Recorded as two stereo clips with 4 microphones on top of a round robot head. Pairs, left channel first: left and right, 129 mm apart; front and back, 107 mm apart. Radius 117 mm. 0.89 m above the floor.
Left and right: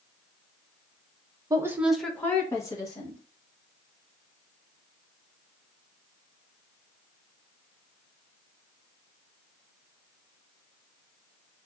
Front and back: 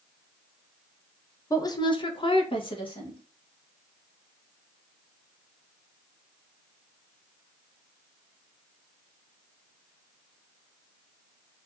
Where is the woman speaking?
45° right, 0.7 m; by 3.2 s 35° left, 1.6 m.